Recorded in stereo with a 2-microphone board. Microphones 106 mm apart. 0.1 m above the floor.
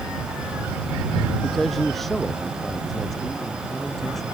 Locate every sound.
1.4 s a man speaking: 5° left (ahead or behind); by 4.2 s centre (ahead or behind)